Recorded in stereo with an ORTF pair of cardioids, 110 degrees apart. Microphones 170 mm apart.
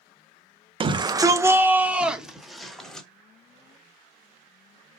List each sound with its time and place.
0.8 s a shout: 30° right, 1.0 m; by 3.1 s 5° left, 2.0 m